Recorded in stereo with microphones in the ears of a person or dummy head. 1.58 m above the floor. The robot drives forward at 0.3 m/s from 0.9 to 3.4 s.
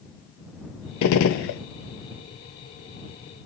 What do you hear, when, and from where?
1.0 s a gunshot: 75° left (ahead or behind), 0.5 m; by 1.6 s 60° left (ahead or behind), 0.6 m